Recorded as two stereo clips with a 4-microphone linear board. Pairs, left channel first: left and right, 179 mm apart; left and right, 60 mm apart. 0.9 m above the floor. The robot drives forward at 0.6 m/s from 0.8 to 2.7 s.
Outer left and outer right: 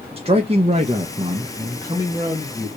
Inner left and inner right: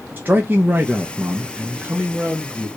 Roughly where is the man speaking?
Right.